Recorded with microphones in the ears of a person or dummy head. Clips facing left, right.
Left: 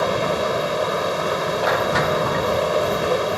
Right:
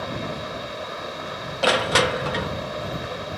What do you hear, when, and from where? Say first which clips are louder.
0.0 s a machine running: left 10 dB; 65° left (ahead or behind)
1.6 s crushing: right 2 dB; 30° right (ahead or behind)